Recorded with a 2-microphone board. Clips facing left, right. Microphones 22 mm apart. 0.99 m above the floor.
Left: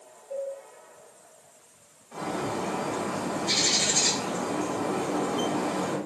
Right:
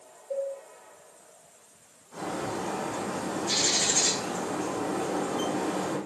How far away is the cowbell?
About 1.7 m.